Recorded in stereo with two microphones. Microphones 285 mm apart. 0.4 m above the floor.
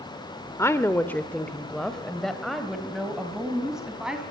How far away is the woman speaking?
About 0.9 m.